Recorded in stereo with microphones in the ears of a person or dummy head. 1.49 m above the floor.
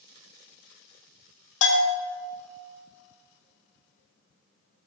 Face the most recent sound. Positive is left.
turn(degrees=75)  # may be behind; listen again after turning